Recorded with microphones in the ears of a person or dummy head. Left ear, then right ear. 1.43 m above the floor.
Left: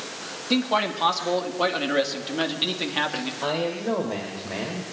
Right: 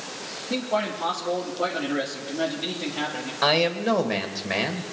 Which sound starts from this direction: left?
A man speaking, at 0.5 s.